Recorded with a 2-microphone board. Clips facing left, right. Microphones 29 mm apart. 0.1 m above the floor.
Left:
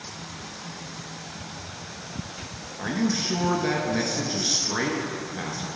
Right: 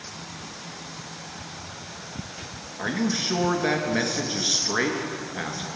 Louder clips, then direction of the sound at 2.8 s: Even; 20° right (ahead or behind).